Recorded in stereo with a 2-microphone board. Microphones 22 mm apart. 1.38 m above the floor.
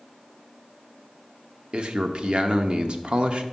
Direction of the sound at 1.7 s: 50° right (ahead or behind).